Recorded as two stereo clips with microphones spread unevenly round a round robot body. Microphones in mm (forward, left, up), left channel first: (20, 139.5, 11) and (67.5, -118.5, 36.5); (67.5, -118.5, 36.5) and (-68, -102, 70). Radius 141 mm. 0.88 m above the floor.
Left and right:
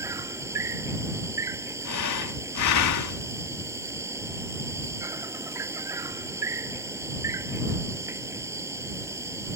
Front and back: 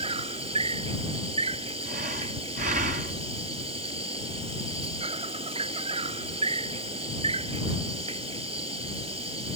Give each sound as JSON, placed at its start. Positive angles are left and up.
{"t": 0.0, "sound": "an insect", "azimuth_deg": -155}
{"t": 1.9, "sound": "breathing", "azimuth_deg": 120}